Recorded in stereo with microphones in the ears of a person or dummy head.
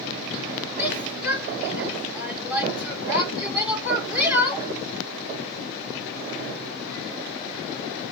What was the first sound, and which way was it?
A shout, 10° right (ahead or behind).